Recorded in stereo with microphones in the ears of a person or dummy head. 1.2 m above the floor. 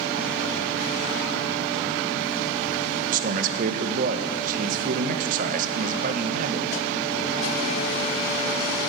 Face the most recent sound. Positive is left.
turn(degrees=-55)  # may be behind; listen again after turning